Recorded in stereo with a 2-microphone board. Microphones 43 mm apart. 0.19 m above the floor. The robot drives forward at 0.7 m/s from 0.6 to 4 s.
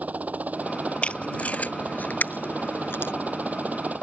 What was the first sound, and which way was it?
A helicopter, 35° right (ahead or behind).